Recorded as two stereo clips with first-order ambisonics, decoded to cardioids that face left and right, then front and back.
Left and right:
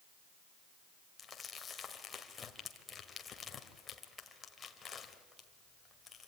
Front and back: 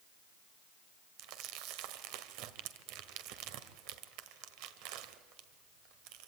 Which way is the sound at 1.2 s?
160° left.